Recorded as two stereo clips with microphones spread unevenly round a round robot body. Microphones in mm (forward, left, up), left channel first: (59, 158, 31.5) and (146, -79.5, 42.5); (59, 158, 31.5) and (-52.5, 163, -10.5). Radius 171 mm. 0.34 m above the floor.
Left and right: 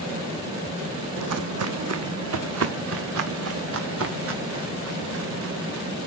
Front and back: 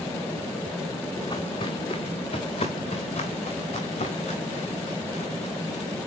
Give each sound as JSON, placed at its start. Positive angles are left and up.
{"t": 1.2, "sound": "footsteps", "azimuth_deg": -60, "distance_m": 0.9}